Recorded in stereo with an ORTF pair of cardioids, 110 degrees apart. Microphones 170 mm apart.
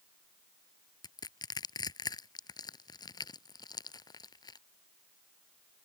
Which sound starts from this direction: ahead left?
Crushing, at 1.0 s.